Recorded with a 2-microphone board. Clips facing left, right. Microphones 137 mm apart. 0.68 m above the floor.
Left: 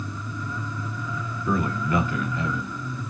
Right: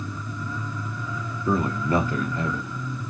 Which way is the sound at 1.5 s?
25° right (ahead or behind).